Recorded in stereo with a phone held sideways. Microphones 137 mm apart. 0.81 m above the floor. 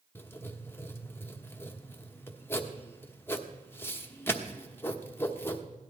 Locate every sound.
0.1 s writing: 15° left (ahead or behind), 1.0 m